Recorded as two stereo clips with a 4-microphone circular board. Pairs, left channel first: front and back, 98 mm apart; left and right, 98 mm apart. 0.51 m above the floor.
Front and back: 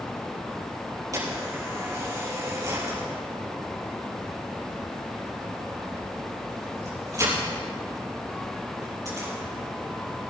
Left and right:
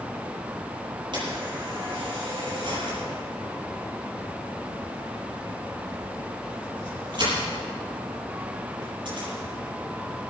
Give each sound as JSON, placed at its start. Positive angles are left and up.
{"t": 1.1, "sound": "a camera shutter", "azimuth_deg": -130, "distance_m": 6.5}